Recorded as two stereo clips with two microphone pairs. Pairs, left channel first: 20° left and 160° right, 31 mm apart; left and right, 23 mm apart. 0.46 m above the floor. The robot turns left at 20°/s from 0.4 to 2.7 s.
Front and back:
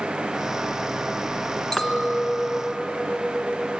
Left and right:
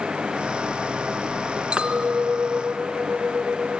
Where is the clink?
45° right, 3 m; by 3.8 s 65° right, 3 m.